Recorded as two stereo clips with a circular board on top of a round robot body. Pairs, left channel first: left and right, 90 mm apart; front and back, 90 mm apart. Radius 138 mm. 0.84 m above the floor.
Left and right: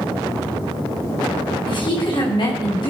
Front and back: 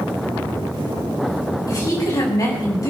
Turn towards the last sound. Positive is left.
turn(degrees=50)